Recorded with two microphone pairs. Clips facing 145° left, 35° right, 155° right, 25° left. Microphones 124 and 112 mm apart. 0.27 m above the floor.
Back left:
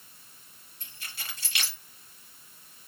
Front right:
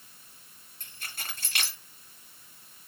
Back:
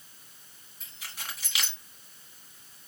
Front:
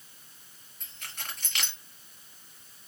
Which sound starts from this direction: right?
Keys jangling, at 0.8 s.